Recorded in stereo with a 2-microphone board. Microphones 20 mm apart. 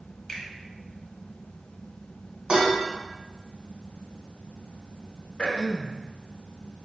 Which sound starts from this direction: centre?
A finger snap, at 0.3 s.